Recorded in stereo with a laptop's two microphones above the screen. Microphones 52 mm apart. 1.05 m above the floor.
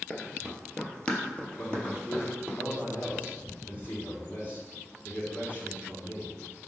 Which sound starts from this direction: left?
A man speaking, at 1.6 s.